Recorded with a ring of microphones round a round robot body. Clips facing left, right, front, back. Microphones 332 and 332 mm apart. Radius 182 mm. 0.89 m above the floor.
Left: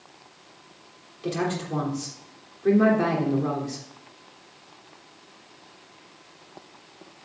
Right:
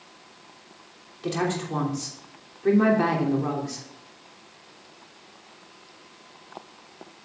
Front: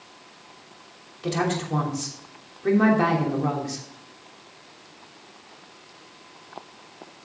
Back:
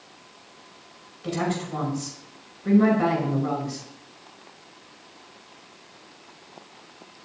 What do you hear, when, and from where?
1.2 s a woman speaking: 10° right, 3 m